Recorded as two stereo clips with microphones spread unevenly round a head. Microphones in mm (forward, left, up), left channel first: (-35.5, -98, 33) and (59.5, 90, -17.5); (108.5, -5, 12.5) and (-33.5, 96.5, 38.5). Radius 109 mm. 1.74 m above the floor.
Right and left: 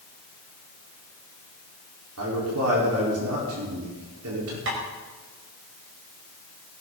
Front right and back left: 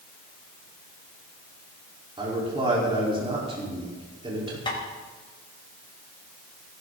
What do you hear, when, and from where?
2.2 s a man speaking: 85° left, 5 m
4.7 s tapping: 30° left, 5 m